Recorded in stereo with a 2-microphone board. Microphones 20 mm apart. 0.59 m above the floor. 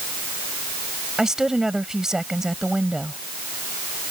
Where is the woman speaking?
30° right (ahead or behind).